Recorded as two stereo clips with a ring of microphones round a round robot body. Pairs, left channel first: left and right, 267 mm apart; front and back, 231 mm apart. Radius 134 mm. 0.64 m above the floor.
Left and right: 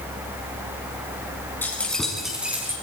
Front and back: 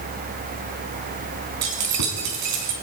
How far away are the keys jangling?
About 5 m.